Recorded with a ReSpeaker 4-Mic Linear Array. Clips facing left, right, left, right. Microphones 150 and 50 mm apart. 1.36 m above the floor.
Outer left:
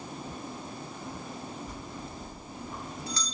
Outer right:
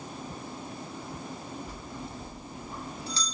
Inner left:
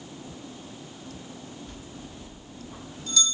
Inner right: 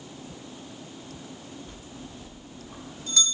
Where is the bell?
30° right (ahead or behind), 1.5 m.